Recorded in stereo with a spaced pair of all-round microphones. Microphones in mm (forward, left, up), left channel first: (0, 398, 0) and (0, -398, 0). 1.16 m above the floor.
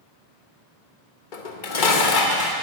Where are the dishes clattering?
80° left, 1.1 m.